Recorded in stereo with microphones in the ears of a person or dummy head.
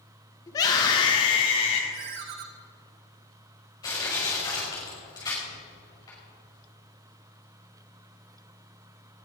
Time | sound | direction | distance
0.5 | a scream | 20° left (ahead or behind) | 2.5 m
1.9 | a ringtone | 40° right (ahead or behind) | 1.0 m
3.8 | crushing | 25° left (ahead or behind) | 5.5 m